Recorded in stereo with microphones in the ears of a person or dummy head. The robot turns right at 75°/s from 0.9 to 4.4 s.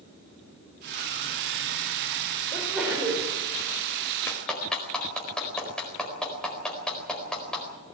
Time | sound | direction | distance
2.5 | a sneeze | 160° left | 4.5 m
4.3 | a clap | 10° left (ahead or behind) | 4.5 m